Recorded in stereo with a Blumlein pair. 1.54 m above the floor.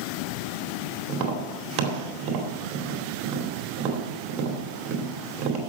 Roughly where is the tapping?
Ahead right.